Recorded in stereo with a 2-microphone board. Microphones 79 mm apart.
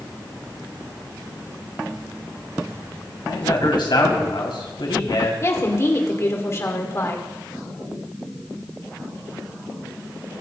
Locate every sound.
3.2 s a man speaking: 80° left, 3.5 m
5.4 s a woman speaking: 35° left (ahead or behind), 2 m